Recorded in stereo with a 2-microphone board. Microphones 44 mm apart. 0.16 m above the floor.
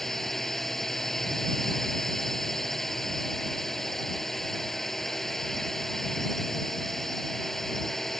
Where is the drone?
5° left (ahead or behind).